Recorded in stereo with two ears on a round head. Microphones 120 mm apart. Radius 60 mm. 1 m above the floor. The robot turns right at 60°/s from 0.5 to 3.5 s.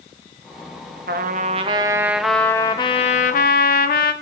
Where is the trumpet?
70° right, 0.9 m; by 4.1 s 75° left, 0.9 m.